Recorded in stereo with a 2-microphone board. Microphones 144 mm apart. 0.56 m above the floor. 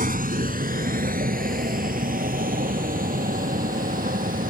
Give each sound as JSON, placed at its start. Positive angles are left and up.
{"t": 0.0, "sound": "a vehicle", "side_deg": -75}